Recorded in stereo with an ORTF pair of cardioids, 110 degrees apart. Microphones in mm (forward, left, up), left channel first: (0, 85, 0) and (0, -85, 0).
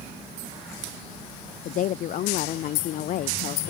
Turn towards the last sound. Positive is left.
turn(degrees=55)